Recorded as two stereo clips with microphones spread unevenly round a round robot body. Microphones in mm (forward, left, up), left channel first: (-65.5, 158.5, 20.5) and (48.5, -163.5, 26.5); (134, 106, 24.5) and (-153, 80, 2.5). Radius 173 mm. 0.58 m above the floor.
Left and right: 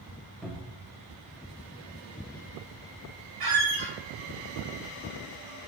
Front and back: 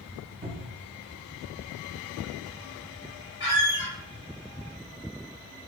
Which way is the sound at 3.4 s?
100° right.